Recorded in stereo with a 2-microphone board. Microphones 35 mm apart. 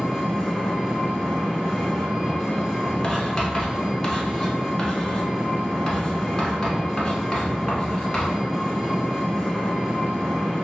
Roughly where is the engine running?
Centre.